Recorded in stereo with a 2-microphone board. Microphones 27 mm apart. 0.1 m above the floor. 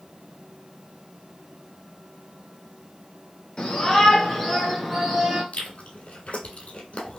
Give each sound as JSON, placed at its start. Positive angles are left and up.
{"t": 3.6, "sound": "a shout", "side_deg": 35, "distance_m": 1.6}
{"t": 5.5, "sound": "chewing", "side_deg": 55, "distance_m": 1.4}